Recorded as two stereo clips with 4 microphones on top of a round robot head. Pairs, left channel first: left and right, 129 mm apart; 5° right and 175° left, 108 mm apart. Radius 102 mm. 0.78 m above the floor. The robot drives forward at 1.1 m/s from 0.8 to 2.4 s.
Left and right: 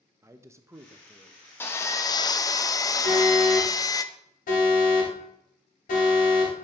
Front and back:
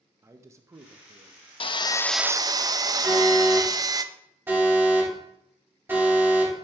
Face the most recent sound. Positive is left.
turn(degrees=105)